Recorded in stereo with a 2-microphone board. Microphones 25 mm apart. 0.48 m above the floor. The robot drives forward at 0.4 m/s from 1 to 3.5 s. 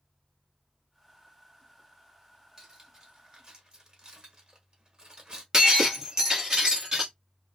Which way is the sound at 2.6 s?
25° right (ahead or behind).